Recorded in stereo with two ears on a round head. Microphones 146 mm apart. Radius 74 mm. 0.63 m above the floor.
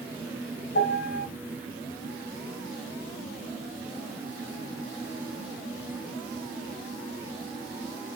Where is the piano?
70° left (ahead or behind), 1.2 m.